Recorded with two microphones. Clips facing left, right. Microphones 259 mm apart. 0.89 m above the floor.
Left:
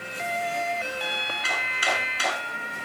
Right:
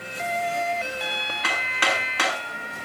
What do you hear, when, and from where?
1.4 s hammering: 90° right, 6.5 m